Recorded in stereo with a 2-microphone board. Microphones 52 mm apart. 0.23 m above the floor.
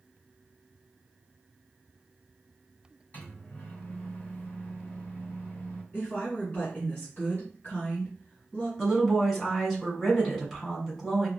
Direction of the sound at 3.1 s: 35° left (ahead or behind).